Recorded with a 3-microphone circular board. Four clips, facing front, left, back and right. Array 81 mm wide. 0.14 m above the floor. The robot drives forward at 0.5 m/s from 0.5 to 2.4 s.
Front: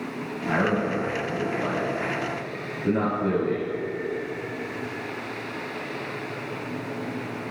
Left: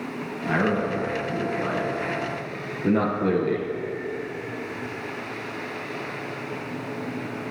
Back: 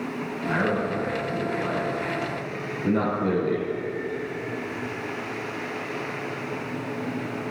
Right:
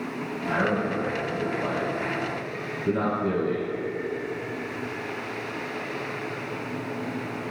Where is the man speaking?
65° left, 1.7 m; by 3.7 s 105° left, 1.6 m.